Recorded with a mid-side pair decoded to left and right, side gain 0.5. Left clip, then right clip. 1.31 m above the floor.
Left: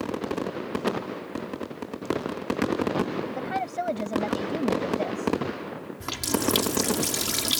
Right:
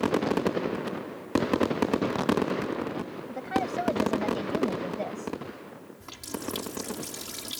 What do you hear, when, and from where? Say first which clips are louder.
3.3 s a woman speaking: even; 15° left
6.0 s a running tap: left 10 dB; 65° left